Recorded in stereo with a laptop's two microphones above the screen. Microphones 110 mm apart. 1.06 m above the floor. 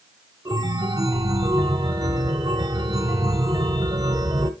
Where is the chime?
35° right (ahead or behind), 0.9 m.